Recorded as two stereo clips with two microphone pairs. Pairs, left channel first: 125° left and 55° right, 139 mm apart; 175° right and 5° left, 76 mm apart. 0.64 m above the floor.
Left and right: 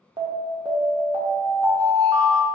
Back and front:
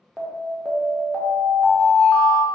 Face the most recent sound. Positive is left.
turn(degrees=-95)